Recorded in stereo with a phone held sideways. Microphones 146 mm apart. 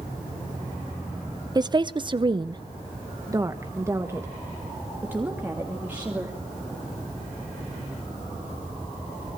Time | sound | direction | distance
1.6 | a woman speaking | 30° right (ahead or behind) | 0.7 m